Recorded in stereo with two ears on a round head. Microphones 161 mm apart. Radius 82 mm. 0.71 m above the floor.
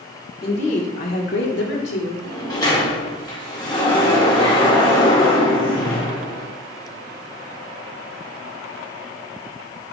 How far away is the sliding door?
About 1.9 m.